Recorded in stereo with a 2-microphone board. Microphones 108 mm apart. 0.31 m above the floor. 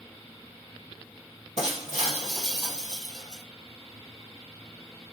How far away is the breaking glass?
About 2 m.